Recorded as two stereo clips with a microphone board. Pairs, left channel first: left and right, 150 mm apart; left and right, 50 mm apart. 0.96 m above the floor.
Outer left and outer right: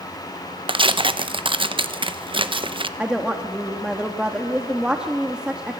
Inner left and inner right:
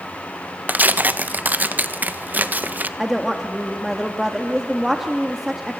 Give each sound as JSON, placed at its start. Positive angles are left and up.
{"t": 0.7, "sound": "tearing paper", "side_deg": -35, "distance_m": 0.8}
{"t": 3.0, "sound": "a woman speaking", "side_deg": -5, "distance_m": 1.3}